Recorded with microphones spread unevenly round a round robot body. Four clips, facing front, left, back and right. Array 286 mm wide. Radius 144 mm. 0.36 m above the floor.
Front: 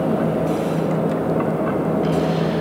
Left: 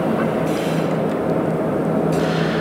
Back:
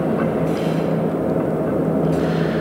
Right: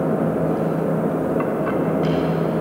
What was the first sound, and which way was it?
Only background noise.